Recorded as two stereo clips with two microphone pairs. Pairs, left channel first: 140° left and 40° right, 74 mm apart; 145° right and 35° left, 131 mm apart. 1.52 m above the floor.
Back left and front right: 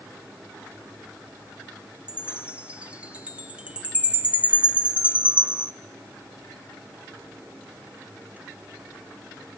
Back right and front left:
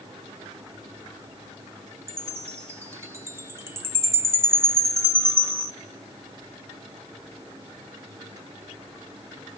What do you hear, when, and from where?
2.1 s a chime: straight ahead, 1.3 m